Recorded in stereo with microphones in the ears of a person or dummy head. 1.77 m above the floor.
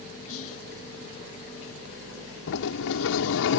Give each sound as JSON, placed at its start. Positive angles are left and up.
{"t": 0.3, "sound": "whispering", "side_deg": 80}
{"t": 2.5, "sound": "a sliding door", "side_deg": 65}